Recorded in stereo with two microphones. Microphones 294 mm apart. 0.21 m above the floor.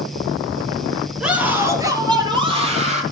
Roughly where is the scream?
Centre.